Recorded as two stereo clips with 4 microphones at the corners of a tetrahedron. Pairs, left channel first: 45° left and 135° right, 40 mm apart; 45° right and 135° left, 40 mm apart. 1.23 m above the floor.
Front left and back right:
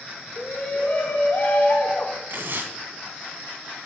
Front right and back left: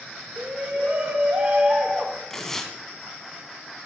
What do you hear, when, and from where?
0.4 s a shout: 85° left, 1.7 m
2.3 s tearing paper: 120° right, 2.5 m